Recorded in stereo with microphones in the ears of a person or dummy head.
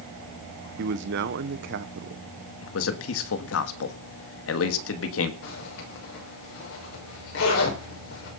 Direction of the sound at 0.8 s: 65° right (ahead or behind).